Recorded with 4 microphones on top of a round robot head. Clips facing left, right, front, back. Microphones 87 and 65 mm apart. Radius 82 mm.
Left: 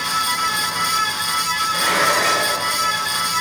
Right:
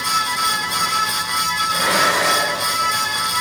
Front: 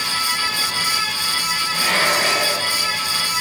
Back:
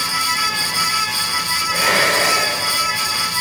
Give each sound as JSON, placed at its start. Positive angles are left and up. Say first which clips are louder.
{"t": 1.7, "sound": "dishes clattering", "louder": "even, back 3 dB", "azimuth_deg": -165, "distance_m": 3.0}